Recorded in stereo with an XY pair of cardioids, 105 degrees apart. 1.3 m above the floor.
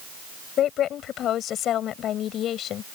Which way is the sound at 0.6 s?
70° left.